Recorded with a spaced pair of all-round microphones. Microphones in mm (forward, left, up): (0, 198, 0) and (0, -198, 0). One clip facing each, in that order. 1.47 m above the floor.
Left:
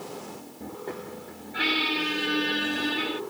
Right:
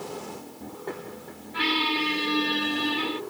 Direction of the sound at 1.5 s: 10° right (ahead or behind).